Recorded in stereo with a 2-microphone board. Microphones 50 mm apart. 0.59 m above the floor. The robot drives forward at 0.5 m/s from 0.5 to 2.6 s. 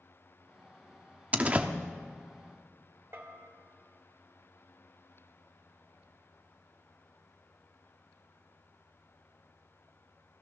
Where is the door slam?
30° right (ahead or behind), 0.7 m; by 1.7 s 25° right (ahead or behind), 0.8 m.